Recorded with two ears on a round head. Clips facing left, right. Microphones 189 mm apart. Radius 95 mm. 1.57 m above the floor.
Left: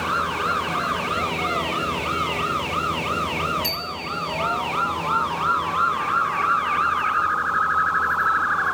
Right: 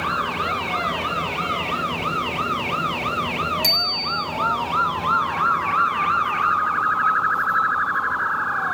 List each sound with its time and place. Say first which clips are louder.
3.6 s a bicycle bell: right 2 dB; 55° right (ahead or behind), 4.5 m